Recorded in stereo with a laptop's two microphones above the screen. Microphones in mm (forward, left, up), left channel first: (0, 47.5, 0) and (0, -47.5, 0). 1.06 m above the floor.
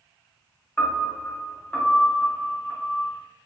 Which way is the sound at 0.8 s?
20° left (ahead or behind).